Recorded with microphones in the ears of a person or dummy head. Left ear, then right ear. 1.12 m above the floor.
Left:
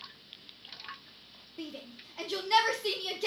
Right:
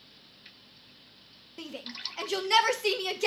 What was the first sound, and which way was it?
A shout, 50° right (ahead or behind).